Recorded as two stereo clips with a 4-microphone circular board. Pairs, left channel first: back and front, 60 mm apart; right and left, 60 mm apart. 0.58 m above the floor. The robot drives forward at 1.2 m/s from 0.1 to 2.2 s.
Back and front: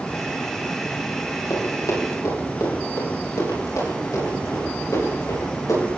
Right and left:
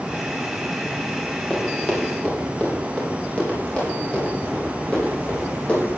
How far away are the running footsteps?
About 5 m.